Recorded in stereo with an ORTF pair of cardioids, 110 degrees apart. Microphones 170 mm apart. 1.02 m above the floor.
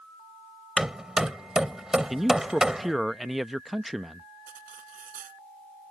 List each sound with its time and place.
0.8 s hammering: 5° right
2.1 s a man speaking: straight ahead
4.5 s cutlery clinking: 55° right